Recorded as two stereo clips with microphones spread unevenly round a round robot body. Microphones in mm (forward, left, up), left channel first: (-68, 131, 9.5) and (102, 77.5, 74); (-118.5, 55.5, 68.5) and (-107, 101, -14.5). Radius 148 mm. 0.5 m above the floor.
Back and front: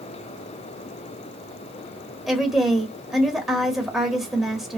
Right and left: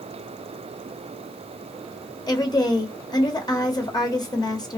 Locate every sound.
2.3 s a woman speaking: 120° left, 1.2 m